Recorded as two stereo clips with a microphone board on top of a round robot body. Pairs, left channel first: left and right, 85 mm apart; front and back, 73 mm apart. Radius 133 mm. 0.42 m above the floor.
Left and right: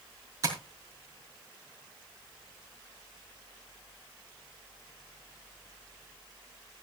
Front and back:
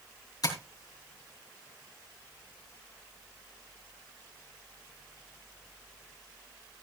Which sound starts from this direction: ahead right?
Tapping, at 0.4 s.